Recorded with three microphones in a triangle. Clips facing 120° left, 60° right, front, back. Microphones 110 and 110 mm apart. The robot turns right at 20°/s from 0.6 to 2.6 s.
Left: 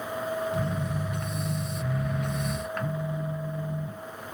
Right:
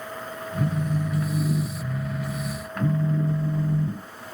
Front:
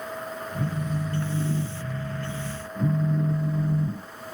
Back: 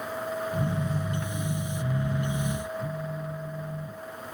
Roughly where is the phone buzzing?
Right.